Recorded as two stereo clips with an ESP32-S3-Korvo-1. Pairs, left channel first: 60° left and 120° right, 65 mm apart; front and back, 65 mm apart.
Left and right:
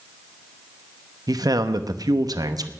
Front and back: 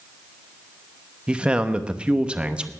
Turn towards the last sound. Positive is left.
turn(degrees=-105)